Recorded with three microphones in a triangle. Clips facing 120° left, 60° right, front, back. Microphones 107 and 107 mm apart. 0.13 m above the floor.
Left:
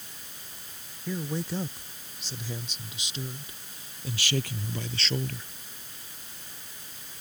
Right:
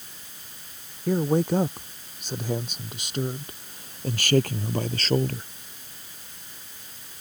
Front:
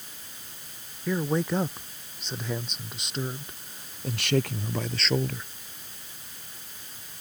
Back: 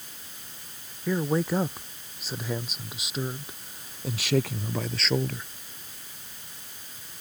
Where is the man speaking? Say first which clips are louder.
Right 10 dB, back 1 dB; 95° right; by 5.5 s 90° right.